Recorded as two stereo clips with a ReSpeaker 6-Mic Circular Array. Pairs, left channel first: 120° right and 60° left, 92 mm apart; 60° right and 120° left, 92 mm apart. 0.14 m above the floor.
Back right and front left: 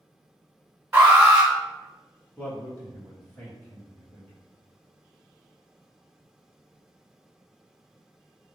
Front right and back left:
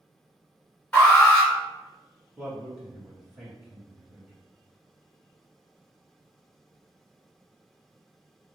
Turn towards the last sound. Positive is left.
turn(degrees=-170)